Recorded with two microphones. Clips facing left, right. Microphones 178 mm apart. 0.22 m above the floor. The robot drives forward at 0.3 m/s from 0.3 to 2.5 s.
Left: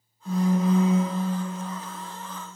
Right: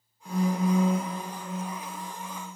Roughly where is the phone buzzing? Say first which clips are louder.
Left 3 dB; centre.